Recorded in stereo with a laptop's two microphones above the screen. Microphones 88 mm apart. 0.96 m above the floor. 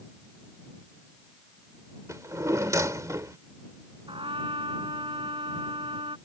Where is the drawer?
35° right (ahead or behind).